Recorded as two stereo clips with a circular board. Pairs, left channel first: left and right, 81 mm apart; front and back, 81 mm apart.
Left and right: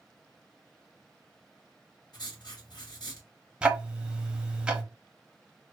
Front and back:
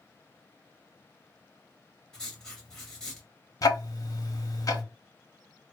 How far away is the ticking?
About 0.6 m.